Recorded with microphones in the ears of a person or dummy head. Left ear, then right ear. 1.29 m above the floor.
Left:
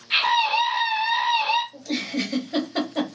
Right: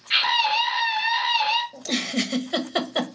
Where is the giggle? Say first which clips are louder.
Right 2 dB; 75° right (ahead or behind), 0.9 m.